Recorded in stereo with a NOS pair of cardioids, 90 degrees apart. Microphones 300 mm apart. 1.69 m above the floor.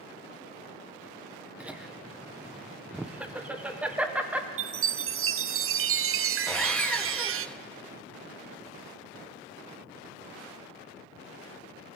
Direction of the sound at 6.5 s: 5° left.